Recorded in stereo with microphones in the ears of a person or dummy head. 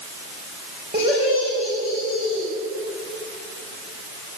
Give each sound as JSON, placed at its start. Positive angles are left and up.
{"t": 0.9, "sound": "laughter", "side_deg": -30, "distance_m": 5.5}